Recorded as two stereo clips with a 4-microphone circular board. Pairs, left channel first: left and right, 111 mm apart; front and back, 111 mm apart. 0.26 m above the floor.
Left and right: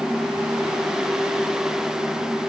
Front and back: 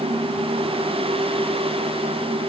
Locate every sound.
Only background noise.